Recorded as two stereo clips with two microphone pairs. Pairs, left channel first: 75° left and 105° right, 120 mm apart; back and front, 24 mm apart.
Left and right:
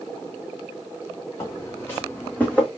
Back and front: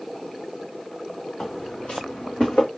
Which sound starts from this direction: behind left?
Footsteps, at 1.4 s.